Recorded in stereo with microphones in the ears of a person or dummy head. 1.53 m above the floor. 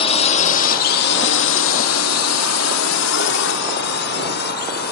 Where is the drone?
30° left (ahead or behind); by 4.9 s 55° left (ahead or behind).